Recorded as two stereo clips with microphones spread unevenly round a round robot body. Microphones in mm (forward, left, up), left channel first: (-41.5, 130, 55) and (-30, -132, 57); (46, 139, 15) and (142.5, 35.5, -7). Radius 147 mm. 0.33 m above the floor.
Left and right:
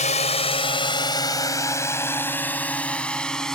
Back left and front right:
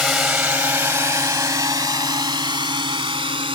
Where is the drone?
35° left; by 3.6 s 5° left.